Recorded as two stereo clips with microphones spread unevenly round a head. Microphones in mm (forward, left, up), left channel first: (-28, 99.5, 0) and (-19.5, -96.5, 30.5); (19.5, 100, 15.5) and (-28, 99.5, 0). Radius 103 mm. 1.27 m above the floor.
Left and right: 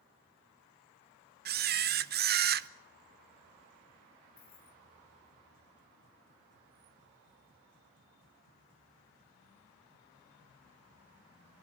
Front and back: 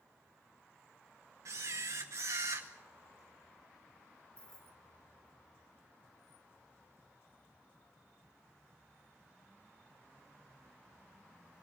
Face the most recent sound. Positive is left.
turn(degrees=45)